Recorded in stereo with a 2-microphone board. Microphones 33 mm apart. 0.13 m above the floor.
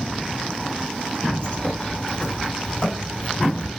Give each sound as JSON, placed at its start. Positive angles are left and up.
{"t": 1.4, "sound": "a bird", "side_deg": 30, "distance_m": 1.8}